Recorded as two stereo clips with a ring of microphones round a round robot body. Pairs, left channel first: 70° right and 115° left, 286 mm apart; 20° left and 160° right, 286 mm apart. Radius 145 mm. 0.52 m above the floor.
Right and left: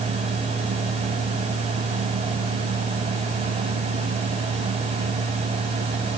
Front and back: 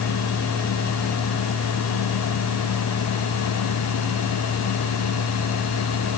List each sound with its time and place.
Only background noise.